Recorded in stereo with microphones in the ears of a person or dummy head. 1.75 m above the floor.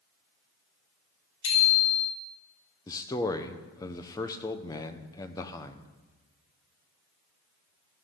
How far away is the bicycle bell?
About 5 m.